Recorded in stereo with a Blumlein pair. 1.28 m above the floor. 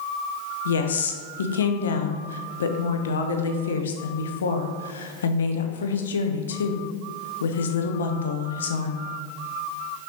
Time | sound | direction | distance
0.7 | a woman speaking | 65° left | 0.6 m